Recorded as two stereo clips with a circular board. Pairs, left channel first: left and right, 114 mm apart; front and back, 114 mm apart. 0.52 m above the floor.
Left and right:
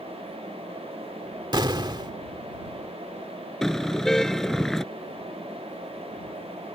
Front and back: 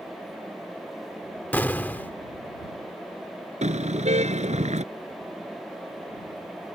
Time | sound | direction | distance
1.5 | an explosion | 65° right | ?
3.6 | a car horn | 175° left | ?